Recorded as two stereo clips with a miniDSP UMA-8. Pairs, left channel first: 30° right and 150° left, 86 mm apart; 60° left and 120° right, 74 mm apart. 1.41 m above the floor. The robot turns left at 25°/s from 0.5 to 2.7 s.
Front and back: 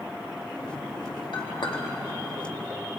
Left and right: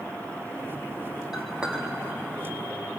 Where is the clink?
35° right, 2.5 m; by 1.8 s 50° right, 2.5 m.